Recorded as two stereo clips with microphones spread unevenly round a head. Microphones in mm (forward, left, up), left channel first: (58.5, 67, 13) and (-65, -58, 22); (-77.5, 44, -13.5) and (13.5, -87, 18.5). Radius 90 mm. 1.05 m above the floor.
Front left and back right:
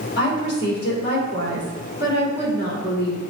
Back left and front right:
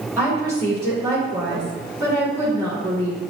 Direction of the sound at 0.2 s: 20° left.